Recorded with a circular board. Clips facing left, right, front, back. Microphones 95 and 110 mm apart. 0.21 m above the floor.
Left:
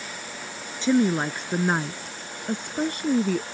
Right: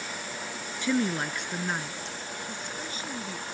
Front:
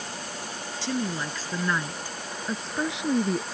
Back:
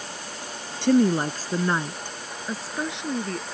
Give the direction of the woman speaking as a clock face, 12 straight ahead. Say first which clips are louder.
Left 6 dB, back 11 dB; 7 o'clock.